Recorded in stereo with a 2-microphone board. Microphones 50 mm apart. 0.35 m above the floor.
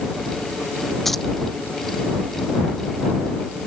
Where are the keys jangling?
5° left (ahead or behind).